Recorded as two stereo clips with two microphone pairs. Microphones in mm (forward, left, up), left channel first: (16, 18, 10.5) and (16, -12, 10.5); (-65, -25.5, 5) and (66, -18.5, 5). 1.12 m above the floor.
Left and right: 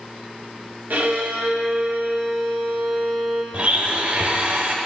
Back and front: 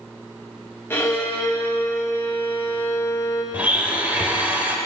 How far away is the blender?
About 1.3 m.